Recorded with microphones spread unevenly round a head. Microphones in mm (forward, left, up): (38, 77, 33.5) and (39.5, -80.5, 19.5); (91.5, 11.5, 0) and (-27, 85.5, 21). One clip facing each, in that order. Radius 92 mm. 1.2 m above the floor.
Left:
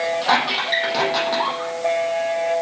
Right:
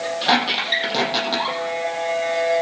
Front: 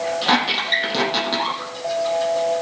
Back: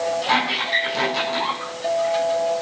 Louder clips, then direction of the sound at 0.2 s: Even, front 2 dB; 30° right.